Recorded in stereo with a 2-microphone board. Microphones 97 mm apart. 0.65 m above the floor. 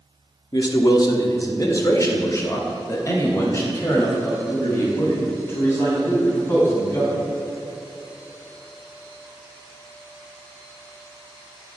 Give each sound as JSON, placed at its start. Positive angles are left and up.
{"t": 0.5, "sound": "a man speaking", "side_deg": 45, "distance_m": 1.1}